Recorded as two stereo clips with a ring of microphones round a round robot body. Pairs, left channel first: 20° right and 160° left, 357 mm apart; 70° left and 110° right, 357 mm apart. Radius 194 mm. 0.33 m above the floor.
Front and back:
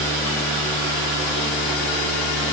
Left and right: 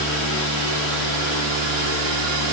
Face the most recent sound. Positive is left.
No sound to turn to.